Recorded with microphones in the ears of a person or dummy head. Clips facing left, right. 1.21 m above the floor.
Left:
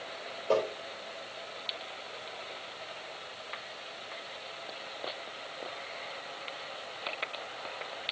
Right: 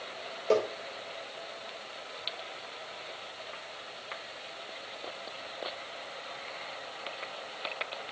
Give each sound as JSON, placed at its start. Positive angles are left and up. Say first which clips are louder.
{"t": 0.5, "sound": "tapping", "louder": "right 2 dB", "side_deg": -25, "distance_m": 5.0}